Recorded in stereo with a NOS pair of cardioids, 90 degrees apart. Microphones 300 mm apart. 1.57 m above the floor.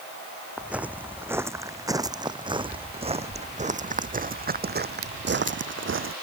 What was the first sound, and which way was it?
Footsteps, 5° right.